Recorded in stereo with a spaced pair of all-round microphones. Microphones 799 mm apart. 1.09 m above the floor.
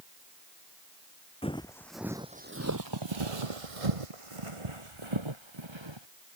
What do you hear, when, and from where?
1.4 s footsteps: 5° left (ahead or behind); by 6.1 s 30° right (ahead or behind)